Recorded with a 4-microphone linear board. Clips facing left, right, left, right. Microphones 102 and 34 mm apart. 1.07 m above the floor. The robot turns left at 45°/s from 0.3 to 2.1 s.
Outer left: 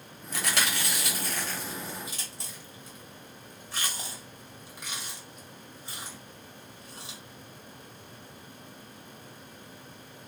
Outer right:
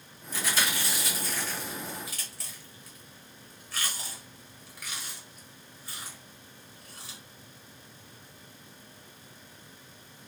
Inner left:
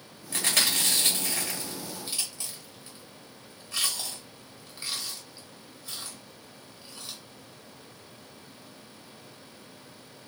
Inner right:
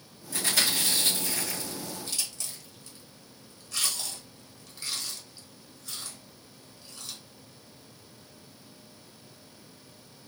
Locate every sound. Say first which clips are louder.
0.3 s chewing: even, inner left 1 dB; 60° left (ahead or behind), 1.6 m; by 7.2 s 25° left (ahead or behind), 1.6 m